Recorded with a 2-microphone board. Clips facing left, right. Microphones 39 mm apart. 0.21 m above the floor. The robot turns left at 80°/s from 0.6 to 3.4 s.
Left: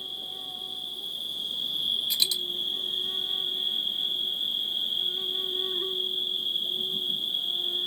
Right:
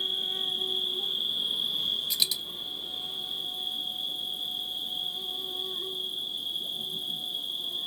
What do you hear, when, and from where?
0.0 s an insect: 90° right, 0.8 m; by 7.9 s 50° left, 0.8 m
2.1 s a dropped coin: 5° left (ahead or behind), 1.6 m; by 2.4 s 20° right (ahead or behind), 1.6 m